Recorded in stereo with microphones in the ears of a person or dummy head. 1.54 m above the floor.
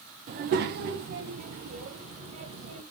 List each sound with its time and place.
0.3 s a child speaking: 45° right (ahead or behind), 0.6 m; by 2.8 s 40° right (ahead or behind), 1.5 m